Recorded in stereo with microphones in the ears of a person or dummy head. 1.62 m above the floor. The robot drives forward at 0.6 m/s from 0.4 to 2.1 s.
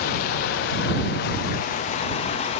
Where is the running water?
45° left (ahead or behind), 0.9 m; by 2.6 s 30° left (ahead or behind), 1.3 m.